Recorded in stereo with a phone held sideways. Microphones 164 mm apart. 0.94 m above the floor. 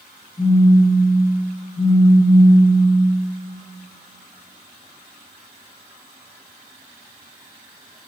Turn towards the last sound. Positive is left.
turn(degrees=40)  # may be behind; listen again after turning